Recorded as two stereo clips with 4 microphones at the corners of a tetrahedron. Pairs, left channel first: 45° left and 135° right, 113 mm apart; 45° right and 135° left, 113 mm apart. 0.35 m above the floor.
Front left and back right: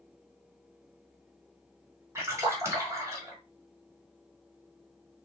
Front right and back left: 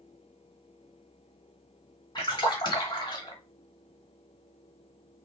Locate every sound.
2.1 s a splash: 75° right, 1.3 m